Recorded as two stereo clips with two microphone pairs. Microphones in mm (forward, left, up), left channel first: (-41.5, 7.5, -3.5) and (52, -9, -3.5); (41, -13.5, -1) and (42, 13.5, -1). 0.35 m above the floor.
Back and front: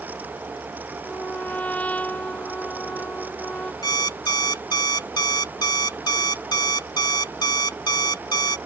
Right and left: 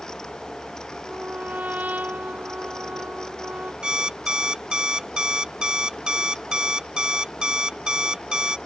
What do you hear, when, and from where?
1.0 s a trumpet: 95° left
3.8 s an alarm clock: 135° left